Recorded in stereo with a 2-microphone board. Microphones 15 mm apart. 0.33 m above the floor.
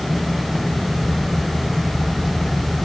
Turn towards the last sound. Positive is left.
No sound to turn to.